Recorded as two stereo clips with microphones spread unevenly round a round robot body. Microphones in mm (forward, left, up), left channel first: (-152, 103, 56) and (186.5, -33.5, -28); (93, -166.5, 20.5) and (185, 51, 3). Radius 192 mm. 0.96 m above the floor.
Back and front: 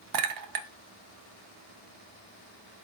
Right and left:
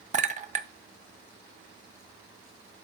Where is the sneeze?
No sneeze in this recording.